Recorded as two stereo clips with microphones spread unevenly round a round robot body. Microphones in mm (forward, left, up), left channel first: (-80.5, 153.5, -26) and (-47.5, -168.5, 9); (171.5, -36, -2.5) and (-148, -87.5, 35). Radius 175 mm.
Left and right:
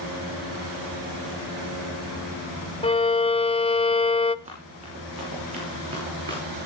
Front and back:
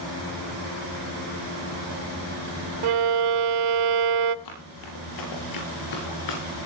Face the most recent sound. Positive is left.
turn(degrees=-10)